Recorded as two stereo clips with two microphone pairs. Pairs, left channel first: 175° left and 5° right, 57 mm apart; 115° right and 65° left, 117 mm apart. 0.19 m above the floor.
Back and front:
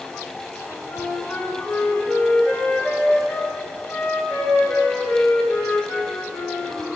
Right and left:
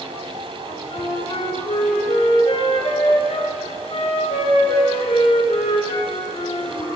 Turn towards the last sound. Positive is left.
turn(degrees=-135)